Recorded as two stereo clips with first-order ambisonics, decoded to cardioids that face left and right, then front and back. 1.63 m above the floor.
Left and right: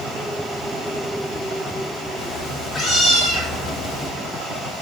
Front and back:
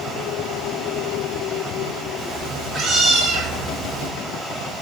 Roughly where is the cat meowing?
Behind left.